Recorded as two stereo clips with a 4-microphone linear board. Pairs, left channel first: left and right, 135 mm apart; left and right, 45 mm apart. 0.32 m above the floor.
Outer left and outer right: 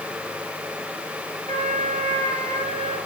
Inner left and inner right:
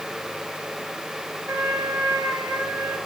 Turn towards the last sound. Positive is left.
turn(degrees=-70)  # may be behind; listen again after turning